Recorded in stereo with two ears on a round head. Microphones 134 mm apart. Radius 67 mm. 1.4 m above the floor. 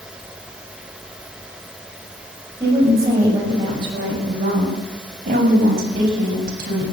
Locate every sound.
2.6 s a woman speaking: 20° right (ahead or behind), 7 m; by 6.8 s 65° right (ahead or behind), 8 m